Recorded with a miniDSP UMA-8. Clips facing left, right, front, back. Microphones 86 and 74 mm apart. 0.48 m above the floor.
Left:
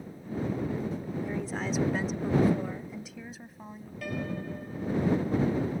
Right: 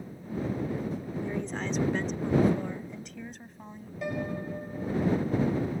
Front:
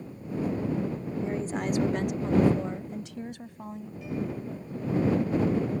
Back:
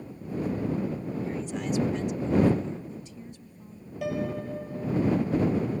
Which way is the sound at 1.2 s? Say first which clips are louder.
Right 1 dB, front 5 dB; 10° left.